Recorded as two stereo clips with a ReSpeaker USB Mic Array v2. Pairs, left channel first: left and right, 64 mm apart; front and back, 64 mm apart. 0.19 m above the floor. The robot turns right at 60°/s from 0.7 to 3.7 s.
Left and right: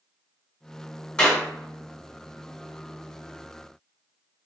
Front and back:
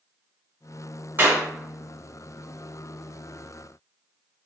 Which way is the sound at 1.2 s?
160° left.